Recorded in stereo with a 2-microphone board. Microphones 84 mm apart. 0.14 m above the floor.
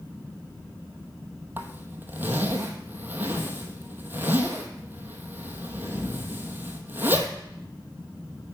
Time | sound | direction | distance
1.6 | a zipper | 25° right (ahead or behind) | 1.1 m